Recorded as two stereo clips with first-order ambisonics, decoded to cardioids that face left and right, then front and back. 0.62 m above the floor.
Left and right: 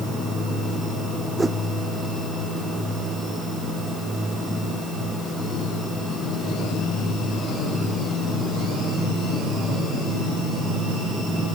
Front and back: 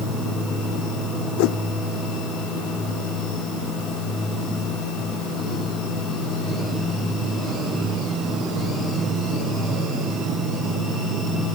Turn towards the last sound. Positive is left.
turn(degrees=-10)